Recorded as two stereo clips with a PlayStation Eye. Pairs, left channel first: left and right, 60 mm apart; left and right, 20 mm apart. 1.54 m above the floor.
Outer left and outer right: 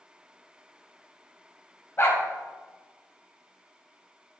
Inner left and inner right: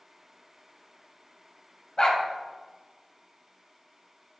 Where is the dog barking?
45° left (ahead or behind), 2 m.